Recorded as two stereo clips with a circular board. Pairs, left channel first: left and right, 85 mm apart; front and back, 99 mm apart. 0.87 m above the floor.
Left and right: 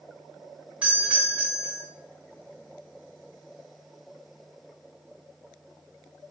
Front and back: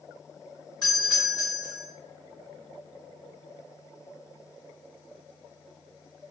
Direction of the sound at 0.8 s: 15° right.